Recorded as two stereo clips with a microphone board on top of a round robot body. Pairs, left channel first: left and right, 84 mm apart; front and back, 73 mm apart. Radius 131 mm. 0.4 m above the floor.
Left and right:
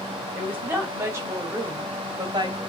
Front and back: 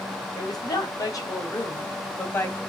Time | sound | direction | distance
0.3 | a woman speaking | 25° right | 3 m